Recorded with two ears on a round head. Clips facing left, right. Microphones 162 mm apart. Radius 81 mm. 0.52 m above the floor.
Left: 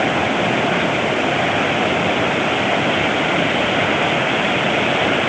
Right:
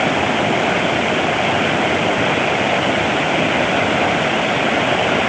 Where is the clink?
No clink in this recording.